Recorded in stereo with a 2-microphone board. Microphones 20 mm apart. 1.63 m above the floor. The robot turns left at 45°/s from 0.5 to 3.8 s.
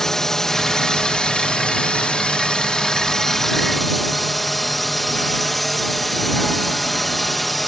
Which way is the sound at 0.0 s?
155° left.